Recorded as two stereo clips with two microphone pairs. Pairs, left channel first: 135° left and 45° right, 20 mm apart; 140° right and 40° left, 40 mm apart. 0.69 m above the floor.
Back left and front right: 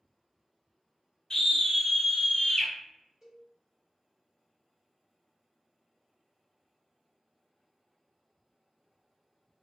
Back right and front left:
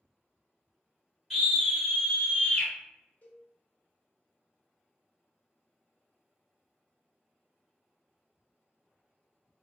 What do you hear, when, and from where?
1.3 s a scream: 105° left, 1.1 m; by 2.7 s 175° right, 1.4 m
3.2 s a cowbell: 95° right, 1.3 m